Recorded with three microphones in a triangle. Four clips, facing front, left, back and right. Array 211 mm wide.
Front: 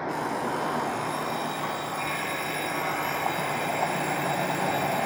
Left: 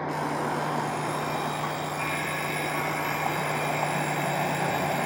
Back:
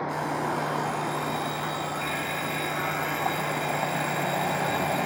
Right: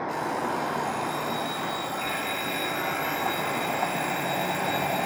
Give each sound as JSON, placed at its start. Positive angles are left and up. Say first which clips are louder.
{"t": 0.1, "sound": "an alarm clock", "louder": "left 1 dB, even", "azimuth_deg": 55, "distance_m": 0.5}